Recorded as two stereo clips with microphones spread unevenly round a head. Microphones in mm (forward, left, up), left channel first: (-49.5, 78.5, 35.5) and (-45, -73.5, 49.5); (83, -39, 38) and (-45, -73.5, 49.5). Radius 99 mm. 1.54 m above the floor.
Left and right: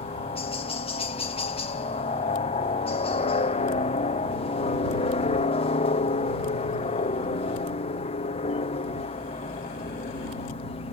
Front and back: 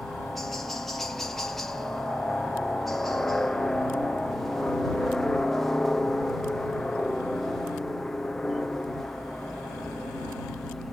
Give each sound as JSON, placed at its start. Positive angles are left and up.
{"t": 0.0, "sound": "a helicopter", "azimuth_deg": 100}